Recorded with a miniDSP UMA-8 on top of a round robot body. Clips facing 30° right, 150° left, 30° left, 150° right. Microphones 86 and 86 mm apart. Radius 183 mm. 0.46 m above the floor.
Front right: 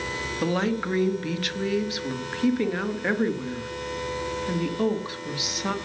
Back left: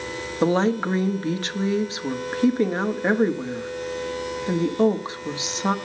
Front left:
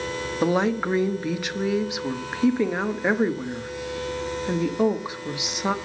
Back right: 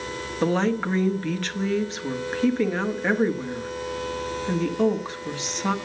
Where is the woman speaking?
105° left, 1.3 m.